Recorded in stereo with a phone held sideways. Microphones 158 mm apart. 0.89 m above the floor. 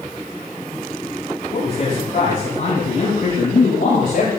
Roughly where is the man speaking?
Left.